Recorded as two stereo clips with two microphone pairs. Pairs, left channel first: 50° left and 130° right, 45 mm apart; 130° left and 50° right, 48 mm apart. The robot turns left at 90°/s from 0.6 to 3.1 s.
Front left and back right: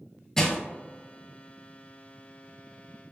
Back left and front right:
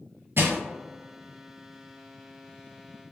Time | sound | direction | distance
0.4 | crushing | 25° right | 0.7 m